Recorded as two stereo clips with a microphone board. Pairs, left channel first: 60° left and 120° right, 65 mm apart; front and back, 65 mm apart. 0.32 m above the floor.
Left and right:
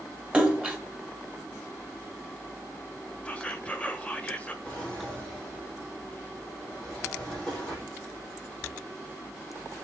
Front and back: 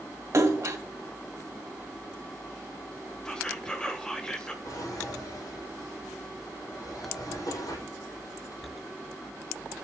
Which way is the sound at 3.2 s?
50° left.